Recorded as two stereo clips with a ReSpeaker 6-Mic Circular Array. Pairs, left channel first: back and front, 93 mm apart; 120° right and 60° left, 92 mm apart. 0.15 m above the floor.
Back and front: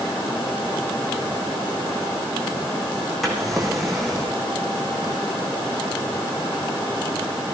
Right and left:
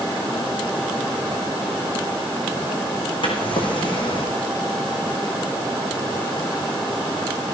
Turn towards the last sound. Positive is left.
turn(degrees=-90)